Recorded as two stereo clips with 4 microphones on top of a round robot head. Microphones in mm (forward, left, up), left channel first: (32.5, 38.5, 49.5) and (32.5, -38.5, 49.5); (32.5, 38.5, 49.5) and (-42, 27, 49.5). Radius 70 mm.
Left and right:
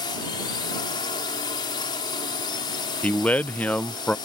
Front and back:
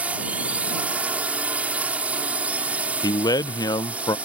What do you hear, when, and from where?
0.0 s a drone: 120° left
3.0 s a man speaking: 20° left